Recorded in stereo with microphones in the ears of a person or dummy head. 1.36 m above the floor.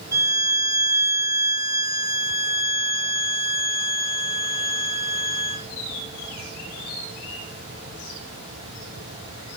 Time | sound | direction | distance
0.1 | a violin | 15° right (ahead or behind) | 2.0 m